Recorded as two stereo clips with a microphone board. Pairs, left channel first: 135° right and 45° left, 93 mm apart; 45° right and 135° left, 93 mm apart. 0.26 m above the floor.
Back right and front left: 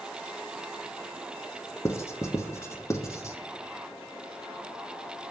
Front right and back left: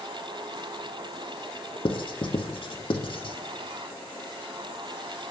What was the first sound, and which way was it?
Writing, 75° right.